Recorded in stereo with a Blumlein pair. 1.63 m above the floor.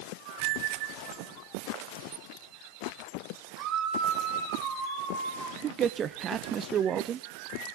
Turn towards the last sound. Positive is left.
turn(degrees=-25)